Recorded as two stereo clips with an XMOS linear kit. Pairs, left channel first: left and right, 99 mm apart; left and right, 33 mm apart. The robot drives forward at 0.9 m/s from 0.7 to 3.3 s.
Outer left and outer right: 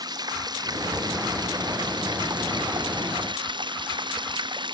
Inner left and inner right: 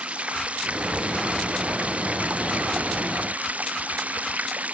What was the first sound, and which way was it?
Running water, 45° right (ahead or behind).